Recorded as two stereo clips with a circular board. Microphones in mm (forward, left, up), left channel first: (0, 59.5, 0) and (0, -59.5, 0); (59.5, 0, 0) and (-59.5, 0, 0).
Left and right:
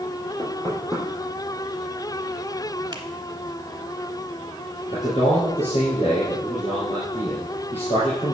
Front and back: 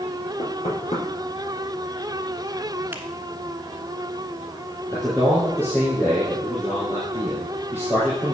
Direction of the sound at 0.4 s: 25° left.